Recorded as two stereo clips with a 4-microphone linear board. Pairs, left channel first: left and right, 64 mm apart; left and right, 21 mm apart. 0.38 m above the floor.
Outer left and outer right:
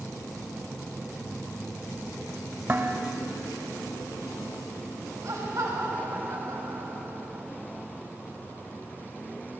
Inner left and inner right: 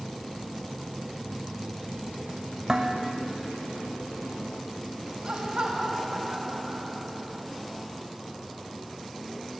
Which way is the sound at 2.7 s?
35° right (ahead or behind).